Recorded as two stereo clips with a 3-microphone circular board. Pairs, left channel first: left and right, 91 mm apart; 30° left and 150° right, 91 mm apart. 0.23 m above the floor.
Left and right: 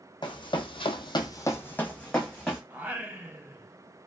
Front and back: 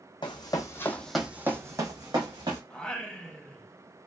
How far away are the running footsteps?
About 0.7 m.